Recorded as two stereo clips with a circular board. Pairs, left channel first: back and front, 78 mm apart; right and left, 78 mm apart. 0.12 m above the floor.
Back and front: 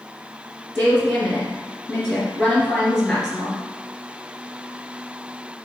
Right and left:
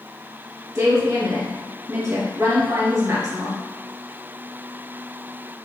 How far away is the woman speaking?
About 1.9 m.